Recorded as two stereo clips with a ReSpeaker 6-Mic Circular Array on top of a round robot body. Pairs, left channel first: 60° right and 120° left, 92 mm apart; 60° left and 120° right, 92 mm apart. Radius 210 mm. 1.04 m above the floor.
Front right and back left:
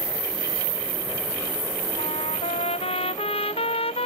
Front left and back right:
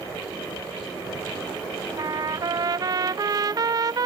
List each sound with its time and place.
2.0 s a trumpet: 70° right